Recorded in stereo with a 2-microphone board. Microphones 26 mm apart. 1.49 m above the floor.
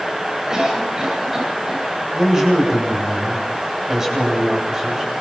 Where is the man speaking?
20° right (ahead or behind), 9 m.